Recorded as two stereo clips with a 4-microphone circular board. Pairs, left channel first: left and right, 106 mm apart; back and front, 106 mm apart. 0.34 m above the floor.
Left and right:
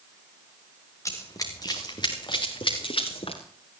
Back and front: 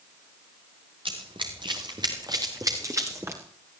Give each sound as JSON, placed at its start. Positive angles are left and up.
{"t": 1.1, "sound": "running footsteps", "azimuth_deg": 30, "distance_m": 3.5}